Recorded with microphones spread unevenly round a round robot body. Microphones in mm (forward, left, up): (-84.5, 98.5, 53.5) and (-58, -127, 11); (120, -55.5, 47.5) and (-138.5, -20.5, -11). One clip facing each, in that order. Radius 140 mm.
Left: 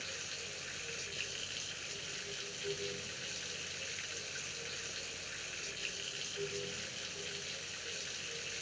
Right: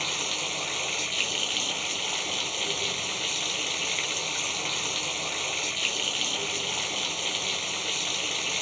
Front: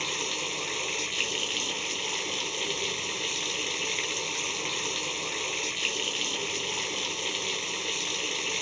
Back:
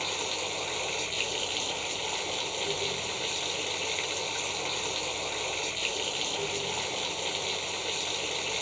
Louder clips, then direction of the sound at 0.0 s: Right 13 dB, even; 70° right.